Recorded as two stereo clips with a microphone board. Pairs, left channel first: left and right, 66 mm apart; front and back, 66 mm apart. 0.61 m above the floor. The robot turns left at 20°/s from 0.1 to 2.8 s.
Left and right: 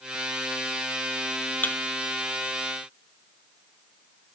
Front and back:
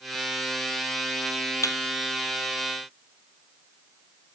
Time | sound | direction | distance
1.6 | a thud | 30° left | 1.5 m